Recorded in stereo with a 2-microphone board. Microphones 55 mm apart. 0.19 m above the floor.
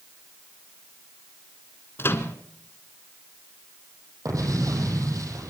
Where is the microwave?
45° left (ahead or behind), 1.8 m.